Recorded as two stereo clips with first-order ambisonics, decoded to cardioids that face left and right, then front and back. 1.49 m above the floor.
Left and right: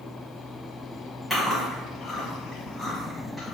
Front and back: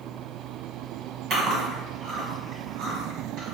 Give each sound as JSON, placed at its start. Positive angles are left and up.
{"t": 1.3, "sound": "chewing", "azimuth_deg": -175, "distance_m": 1.8}